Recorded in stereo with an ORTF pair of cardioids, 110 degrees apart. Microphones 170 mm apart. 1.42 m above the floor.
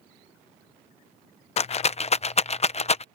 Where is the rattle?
40° left.